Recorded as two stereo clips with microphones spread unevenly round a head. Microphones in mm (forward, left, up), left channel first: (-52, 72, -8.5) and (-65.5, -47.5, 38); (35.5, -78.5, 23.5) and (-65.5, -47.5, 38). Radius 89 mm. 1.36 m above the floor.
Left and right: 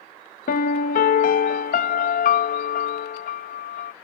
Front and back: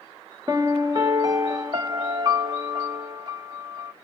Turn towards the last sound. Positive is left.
turn(degrees=100)